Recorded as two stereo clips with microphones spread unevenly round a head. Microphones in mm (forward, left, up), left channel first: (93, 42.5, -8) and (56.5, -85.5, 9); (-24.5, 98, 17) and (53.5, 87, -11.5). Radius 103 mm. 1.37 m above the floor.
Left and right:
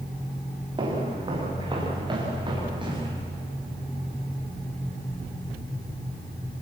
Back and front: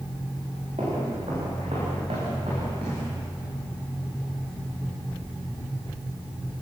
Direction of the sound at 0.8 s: 55° right.